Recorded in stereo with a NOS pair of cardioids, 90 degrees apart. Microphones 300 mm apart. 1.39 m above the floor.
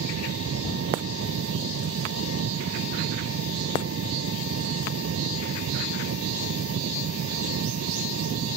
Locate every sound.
0.0 s an engine running: 50° right